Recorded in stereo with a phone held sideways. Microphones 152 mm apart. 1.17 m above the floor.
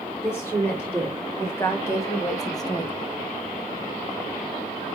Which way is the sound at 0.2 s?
15° left (ahead or behind).